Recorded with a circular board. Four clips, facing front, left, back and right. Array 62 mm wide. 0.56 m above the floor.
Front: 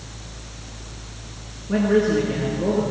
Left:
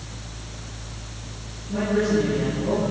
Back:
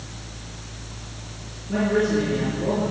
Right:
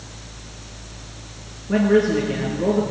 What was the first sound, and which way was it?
A man speaking, 65° right.